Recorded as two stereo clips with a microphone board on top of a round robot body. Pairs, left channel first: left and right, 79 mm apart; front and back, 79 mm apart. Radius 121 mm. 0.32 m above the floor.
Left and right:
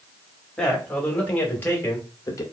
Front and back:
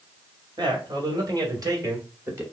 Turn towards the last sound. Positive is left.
turn(degrees=130)